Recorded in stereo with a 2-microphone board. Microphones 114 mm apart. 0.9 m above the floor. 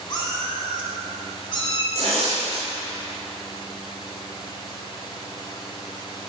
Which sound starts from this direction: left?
A cat meowing, at 0.1 s.